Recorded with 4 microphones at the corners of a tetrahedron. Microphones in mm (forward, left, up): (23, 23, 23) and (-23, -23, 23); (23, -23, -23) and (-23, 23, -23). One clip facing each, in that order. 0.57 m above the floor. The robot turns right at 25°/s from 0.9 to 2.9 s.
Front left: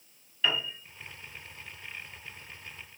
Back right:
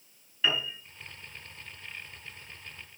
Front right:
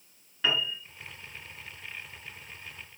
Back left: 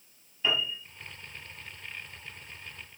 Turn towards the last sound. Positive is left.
turn(degrees=-5)